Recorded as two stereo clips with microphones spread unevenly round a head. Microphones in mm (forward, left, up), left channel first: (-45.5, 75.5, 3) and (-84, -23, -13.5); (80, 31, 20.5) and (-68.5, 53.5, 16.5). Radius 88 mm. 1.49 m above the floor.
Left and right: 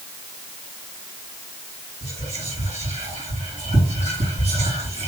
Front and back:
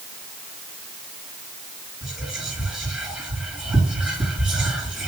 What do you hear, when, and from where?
2.0 s whispering: 105° right, 2.5 m